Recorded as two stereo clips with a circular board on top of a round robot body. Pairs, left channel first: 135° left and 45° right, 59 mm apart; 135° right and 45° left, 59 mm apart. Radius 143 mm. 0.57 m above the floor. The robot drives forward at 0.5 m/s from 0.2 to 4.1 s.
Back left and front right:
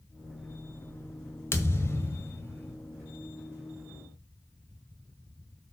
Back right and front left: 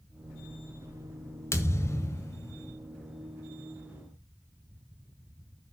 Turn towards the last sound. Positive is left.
turn(degrees=180)